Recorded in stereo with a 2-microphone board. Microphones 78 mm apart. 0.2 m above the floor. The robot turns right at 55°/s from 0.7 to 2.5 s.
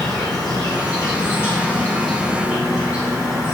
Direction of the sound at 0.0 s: 100° left.